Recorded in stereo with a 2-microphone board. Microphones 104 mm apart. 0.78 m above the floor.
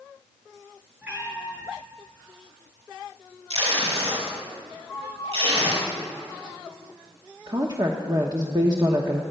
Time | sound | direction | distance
1.0 | a cat meowing | 15° right (ahead or behind) | 3.5 m
3.5 | tape being pulled | 70° right (ahead or behind) | 5 m
4.9 | a flute | 15° right (ahead or behind) | 5 m
7.5 | a woman speaking | 40° right (ahead or behind) | 1.0 m